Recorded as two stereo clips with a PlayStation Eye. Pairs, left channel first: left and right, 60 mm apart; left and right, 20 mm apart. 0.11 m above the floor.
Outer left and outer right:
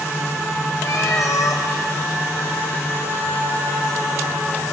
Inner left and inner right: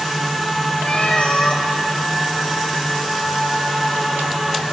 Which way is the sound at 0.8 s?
55° left (ahead or behind).